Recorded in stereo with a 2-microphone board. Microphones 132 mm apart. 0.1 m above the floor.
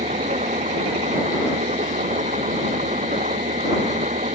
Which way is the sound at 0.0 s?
70° right (ahead or behind).